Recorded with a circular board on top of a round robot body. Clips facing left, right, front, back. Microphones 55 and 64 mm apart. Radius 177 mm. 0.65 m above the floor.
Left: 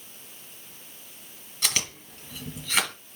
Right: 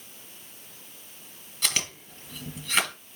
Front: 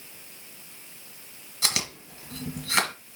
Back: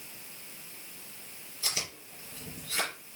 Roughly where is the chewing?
Ahead.